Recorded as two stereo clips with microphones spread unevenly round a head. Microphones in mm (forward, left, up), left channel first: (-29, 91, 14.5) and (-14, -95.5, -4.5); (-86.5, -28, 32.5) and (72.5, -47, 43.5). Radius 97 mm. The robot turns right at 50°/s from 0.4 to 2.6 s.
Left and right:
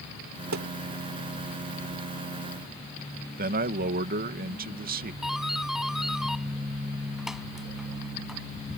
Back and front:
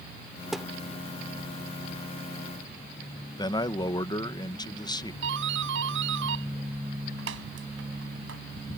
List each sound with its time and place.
0.5 s a thud: 95° right; by 0.7 s 85° right
3.4 s a man speaking: 125° right
5.2 s a doorbell: 5° left